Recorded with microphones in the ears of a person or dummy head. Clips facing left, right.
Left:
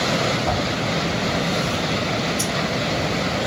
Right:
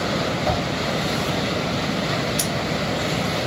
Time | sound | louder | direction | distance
0.5 | a whoosh | right 1 dB | 50° right (ahead or behind) | 1.1 m
2.4 | scissors | left 1 dB | 35° right (ahead or behind) | 1.2 m